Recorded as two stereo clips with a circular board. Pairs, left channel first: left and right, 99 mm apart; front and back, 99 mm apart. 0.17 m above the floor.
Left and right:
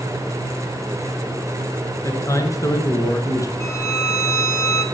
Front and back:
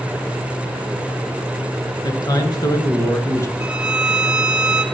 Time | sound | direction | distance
2.0 | a man speaking | 35° left | 2.0 m
3.6 | a violin | 105° left | 0.9 m